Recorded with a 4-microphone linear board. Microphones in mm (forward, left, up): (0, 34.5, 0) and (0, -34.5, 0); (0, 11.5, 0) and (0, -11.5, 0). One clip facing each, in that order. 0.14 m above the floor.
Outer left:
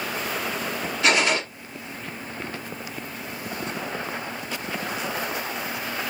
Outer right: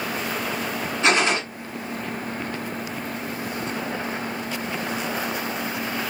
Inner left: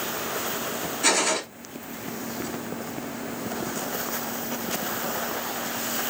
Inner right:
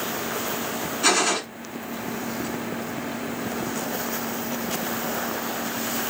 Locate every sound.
1.0 s a gunshot: 30° right (ahead or behind), 1.6 m